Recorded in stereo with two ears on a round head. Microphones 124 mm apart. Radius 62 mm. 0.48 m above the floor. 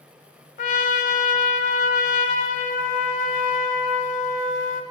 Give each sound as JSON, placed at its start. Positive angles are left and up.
{"t": 0.6, "sound": "a trumpet", "side_deg": 60, "distance_m": 0.8}